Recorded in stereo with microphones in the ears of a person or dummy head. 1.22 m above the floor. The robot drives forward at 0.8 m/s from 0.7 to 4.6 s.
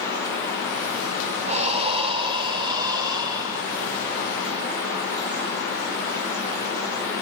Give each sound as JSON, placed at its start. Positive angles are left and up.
{"t": 1.5, "sound": "breathing", "side_deg": -35, "distance_m": 1.6}